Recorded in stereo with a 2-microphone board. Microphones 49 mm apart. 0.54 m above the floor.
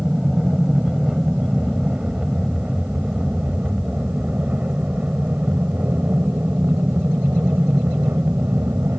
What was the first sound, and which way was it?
An aircraft, 10° right (ahead or behind).